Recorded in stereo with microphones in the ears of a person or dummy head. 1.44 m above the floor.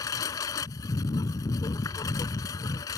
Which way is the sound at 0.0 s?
20° left (ahead or behind).